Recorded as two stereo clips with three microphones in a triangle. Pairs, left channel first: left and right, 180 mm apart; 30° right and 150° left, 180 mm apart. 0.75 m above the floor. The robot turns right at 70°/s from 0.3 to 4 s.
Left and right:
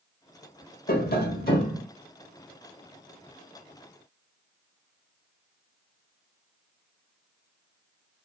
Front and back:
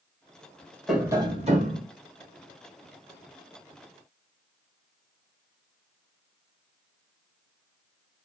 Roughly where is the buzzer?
No buzzer in this recording.